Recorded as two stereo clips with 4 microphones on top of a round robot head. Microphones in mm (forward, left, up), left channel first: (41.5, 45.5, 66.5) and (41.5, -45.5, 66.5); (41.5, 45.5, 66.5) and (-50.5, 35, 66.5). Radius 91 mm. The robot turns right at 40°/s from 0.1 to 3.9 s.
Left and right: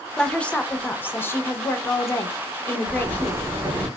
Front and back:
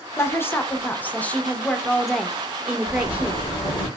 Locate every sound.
0.2 s a woman speaking: 15° left, 0.6 m; by 3.4 s 145° left, 0.6 m
2.9 s a zipper: 50° right, 1.1 m; by 3.9 s 10° right, 1.1 m